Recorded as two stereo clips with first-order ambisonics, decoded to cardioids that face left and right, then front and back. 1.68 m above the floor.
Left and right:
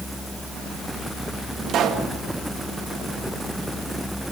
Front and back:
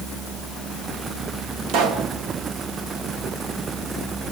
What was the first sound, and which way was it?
A pop, 140° right.